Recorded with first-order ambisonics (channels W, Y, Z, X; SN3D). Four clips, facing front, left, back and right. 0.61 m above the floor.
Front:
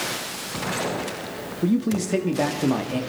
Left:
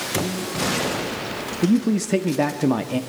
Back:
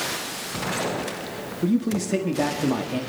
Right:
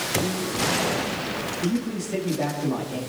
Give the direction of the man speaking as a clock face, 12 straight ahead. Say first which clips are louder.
Left 10 dB, front 1 dB; 9 o'clock.